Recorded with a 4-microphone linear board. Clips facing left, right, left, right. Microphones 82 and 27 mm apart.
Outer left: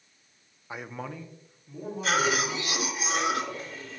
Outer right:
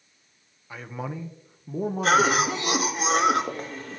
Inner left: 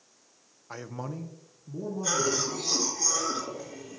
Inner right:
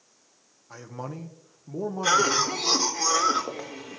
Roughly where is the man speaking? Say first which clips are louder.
Outer right 3 dB, even; left.